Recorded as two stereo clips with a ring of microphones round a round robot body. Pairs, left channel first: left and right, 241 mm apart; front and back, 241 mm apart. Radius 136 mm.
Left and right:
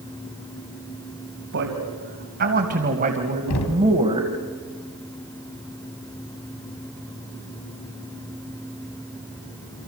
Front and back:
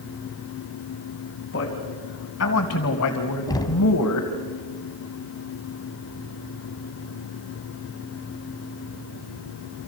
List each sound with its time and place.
1.5 s a man speaking: 50° right, 3.5 m; by 4.3 s 15° right, 3 m
3.5 s knocking: 75° left, 2.5 m